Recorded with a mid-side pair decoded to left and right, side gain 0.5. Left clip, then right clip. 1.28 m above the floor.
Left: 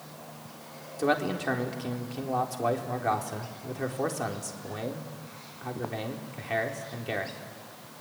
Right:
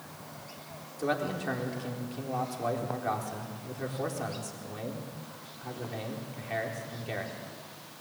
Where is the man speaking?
30° left, 4 m.